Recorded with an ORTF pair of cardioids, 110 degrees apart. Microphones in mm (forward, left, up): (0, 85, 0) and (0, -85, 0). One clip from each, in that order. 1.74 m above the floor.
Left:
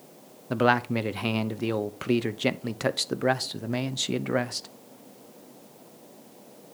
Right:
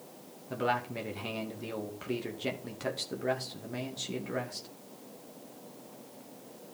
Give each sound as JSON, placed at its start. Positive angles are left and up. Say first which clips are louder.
{"t": 0.5, "sound": "a man speaking", "louder": "left 8 dB", "azimuth_deg": 50, "distance_m": 0.9}